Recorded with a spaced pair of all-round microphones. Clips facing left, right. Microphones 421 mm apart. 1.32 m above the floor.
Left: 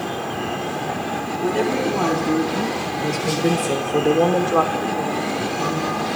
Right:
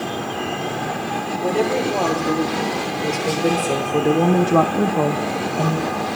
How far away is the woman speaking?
About 4.5 m.